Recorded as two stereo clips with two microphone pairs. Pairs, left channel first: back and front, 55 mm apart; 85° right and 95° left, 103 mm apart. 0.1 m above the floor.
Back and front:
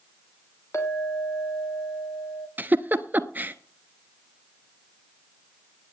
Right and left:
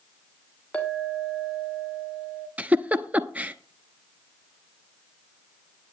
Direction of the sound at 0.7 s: 165° right.